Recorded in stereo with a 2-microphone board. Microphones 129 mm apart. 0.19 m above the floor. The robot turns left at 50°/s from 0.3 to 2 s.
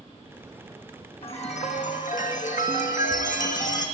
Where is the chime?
130° left, 2.5 m; by 3.9 s 95° left, 2.5 m.